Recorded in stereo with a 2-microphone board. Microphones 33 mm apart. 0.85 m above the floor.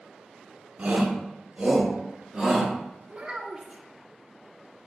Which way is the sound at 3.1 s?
25° right (ahead or behind).